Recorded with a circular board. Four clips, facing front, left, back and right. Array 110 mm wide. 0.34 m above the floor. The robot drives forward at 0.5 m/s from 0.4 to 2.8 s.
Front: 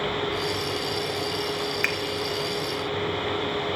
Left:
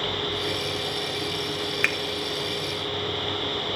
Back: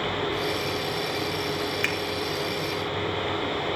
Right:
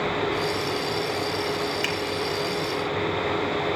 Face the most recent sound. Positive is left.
turn(degrees=115)